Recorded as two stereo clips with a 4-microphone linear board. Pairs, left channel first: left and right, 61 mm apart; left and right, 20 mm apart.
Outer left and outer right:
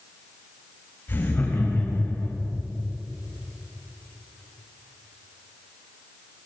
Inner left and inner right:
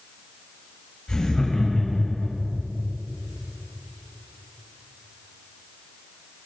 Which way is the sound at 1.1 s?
35° left (ahead or behind).